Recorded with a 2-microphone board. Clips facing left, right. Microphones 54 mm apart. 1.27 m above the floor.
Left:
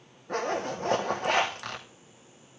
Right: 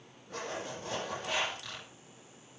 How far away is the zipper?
About 3 m.